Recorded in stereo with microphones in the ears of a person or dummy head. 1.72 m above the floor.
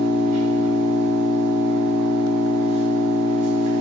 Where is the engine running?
35° right (ahead or behind), 3.5 m.